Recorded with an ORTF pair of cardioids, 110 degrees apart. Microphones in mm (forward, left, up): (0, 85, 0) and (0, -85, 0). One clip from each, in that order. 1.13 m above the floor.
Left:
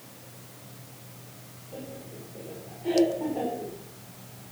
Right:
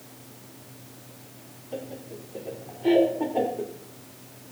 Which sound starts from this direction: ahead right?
Laughter, at 1.7 s.